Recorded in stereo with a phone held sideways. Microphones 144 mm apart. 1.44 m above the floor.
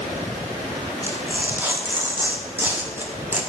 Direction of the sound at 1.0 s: 15° right (ahead or behind).